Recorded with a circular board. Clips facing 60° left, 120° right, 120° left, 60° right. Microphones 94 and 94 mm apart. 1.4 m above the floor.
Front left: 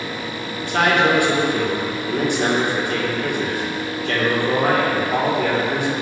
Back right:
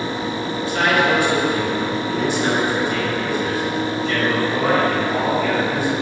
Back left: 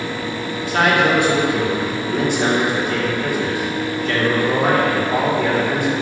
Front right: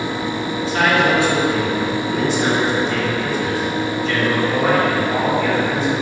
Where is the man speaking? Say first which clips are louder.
Front left 1 dB, back left 1 dB; 90° left, 2.0 m.